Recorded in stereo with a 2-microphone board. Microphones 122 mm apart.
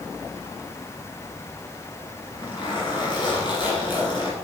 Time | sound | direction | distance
2.2 | a zipper | 40° left (ahead or behind) | 2.5 m